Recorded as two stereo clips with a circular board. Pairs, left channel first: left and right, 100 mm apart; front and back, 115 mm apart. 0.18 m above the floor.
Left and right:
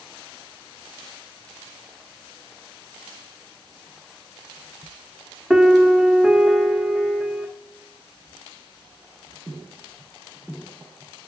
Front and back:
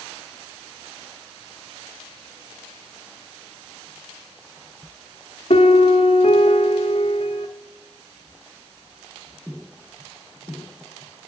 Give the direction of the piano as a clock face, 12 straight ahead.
12 o'clock.